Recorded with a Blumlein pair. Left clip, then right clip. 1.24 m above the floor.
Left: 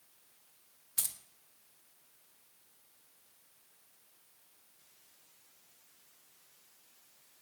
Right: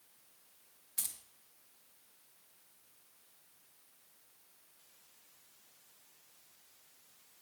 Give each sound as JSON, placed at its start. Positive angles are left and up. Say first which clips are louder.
{"t": 1.0, "sound": "keys jangling", "louder": "left 4 dB", "azimuth_deg": 20, "distance_m": 0.6}